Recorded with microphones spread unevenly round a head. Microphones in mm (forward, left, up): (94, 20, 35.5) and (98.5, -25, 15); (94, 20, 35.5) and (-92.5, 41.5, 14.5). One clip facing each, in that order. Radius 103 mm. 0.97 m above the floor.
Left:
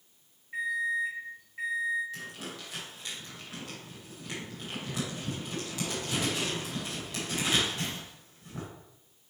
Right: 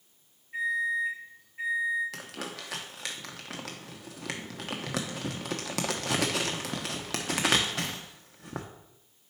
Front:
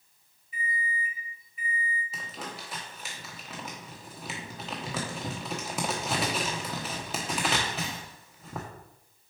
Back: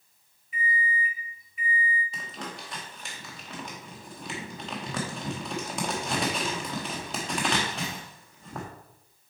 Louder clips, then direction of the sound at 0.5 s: Right 2 dB, back 4 dB; 155° left.